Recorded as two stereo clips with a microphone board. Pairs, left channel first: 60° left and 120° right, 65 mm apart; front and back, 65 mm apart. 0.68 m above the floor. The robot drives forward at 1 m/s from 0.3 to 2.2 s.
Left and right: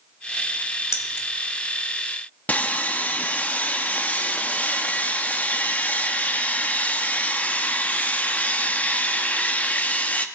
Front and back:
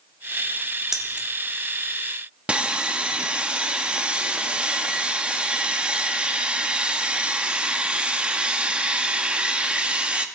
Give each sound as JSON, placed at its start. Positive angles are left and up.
{"t": 0.9, "sound": "keys jangling", "azimuth_deg": 95, "distance_m": 1.4}
{"t": 2.5, "sound": "sawing", "azimuth_deg": 115, "distance_m": 0.6}